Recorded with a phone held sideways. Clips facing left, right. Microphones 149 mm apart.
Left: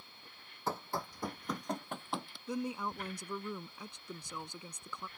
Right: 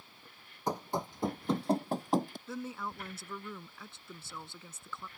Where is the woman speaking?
15° left (ahead or behind).